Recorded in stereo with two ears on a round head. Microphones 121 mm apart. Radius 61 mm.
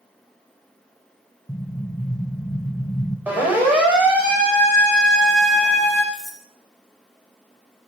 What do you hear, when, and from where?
1.5 s an explosion: 15° left (ahead or behind), 1.5 m
3.3 s a siren: 10° right (ahead or behind), 6 m; by 6.0 s centre (ahead or behind), 9.5 m
6.1 s cutlery clinking: centre (ahead or behind), 3 m